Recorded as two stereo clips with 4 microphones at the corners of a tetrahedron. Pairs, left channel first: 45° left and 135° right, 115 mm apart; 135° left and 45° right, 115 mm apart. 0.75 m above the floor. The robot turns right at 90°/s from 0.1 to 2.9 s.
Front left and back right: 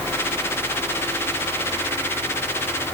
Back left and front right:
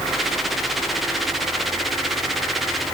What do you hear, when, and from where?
Only background noise.